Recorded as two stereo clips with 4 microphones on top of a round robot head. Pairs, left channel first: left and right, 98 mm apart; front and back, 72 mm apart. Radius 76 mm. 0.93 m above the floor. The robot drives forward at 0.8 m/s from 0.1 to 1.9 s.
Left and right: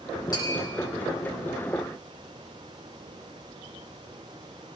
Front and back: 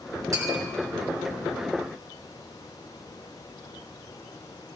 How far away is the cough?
No cough in this recording.